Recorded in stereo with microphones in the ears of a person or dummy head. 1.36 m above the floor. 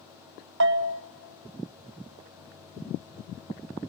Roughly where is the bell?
Right.